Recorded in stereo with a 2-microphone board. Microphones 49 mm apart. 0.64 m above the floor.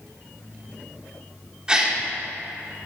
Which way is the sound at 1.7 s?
20° right (ahead or behind).